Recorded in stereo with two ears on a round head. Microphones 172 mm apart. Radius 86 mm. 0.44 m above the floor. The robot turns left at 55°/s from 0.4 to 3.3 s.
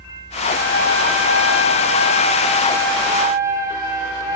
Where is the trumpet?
135° left, 2 m; by 4.4 s 15° right, 2 m.